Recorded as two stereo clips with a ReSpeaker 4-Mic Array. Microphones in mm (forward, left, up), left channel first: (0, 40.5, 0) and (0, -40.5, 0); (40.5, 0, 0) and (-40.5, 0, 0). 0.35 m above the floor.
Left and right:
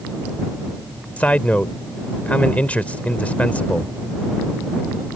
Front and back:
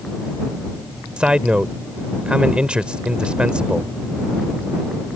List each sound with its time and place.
1.2 s a man speaking: 125° left